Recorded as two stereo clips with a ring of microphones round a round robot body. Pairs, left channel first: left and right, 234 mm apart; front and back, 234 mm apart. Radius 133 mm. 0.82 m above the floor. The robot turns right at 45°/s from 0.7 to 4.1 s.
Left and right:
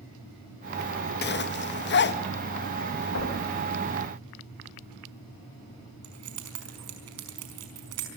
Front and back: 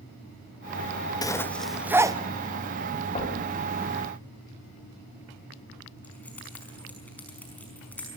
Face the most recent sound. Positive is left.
turn(degrees=-85)